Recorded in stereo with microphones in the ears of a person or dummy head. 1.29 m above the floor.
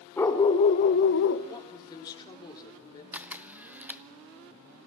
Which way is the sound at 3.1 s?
5° right (ahead or behind).